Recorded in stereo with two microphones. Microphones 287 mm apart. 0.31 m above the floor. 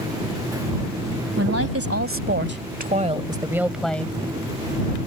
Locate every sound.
1.4 s a woman speaking: 60° right (ahead or behind); by 4.2 s 10° left (ahead or behind)